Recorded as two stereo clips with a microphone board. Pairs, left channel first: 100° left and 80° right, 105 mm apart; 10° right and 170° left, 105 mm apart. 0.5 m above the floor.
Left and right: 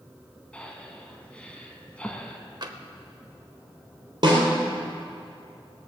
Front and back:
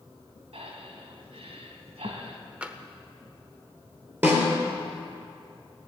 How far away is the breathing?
About 1.5 m.